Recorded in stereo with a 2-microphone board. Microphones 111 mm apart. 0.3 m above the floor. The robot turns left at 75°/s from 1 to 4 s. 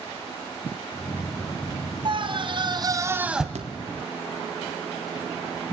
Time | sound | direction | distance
2.0 | a scream | 70° right | 2.5 m
3.5 | a thud | 75° right (ahead or behind) | 2 m